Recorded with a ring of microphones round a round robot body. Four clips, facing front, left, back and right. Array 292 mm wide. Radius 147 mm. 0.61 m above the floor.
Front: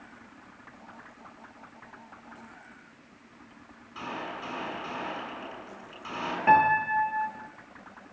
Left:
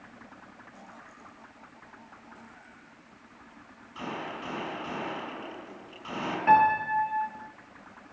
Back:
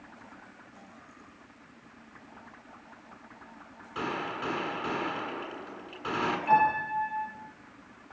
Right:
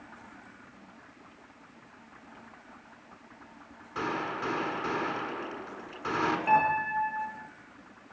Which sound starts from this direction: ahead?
A piano, at 6.5 s.